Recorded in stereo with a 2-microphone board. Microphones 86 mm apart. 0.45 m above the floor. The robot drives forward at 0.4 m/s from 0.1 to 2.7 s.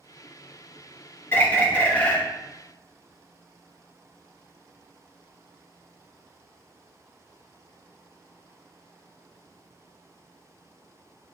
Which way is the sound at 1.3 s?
25° left (ahead or behind).